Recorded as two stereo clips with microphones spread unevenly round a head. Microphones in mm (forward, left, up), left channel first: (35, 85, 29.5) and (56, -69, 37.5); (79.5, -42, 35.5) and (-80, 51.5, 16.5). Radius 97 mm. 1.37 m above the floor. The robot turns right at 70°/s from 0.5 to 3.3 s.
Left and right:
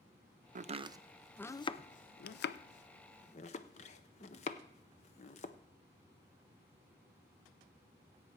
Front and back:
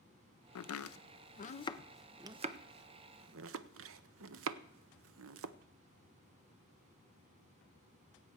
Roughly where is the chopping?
Ahead right.